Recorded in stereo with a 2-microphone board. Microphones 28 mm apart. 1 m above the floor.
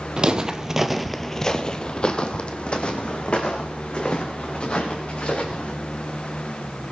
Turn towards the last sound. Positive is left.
turn(degrees=45)  # may be behind; listen again after turning